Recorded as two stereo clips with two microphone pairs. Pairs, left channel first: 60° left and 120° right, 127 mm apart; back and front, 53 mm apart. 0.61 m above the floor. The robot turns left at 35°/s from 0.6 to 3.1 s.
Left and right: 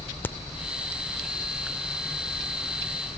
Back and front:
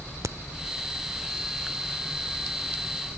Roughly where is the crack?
Ahead.